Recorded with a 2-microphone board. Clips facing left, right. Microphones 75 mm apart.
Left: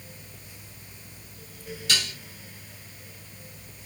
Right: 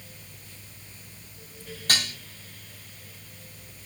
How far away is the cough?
I don't hear a cough.